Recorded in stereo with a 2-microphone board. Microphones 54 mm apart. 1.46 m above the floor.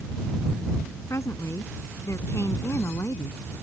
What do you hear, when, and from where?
1.1 s a woman speaking: 70° left (ahead or behind); by 3.4 s 60° left (ahead or behind)